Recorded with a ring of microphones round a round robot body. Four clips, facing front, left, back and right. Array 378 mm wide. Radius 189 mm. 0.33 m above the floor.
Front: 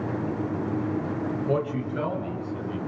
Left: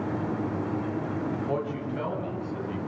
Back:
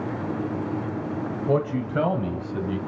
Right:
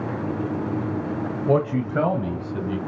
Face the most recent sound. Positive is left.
turn(degrees=-140)